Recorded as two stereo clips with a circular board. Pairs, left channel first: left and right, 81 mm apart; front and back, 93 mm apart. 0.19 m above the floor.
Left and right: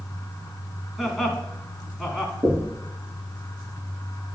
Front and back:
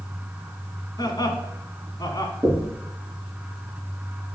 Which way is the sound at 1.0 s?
Straight ahead.